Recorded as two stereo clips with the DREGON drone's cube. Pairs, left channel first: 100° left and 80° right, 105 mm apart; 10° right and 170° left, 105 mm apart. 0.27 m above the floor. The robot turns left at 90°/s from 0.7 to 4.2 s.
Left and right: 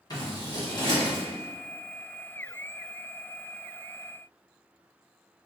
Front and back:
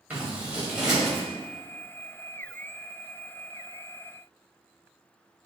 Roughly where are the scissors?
Left.